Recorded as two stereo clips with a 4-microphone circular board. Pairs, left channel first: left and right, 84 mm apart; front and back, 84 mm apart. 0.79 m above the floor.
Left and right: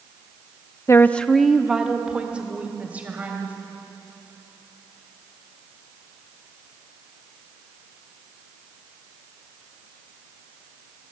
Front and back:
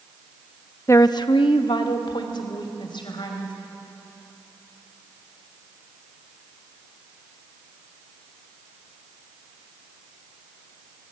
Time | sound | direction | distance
0.9 | a woman speaking | 45° left | 0.6 m